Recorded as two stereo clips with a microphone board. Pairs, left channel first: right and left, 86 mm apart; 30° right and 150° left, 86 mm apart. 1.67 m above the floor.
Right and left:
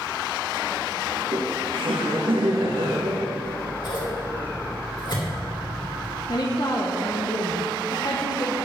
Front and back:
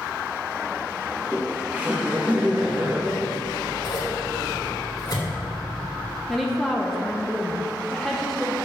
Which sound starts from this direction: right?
Scissors, at 3.4 s.